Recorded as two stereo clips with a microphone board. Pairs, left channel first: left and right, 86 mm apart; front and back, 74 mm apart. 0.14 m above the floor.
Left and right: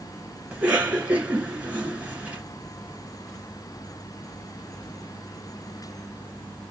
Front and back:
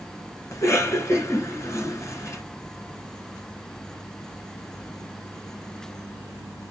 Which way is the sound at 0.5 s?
25° right.